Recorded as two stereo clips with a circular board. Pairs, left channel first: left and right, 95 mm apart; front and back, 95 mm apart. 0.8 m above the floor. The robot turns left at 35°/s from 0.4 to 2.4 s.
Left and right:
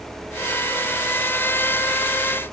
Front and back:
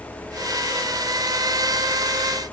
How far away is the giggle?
I don't hear a giggle.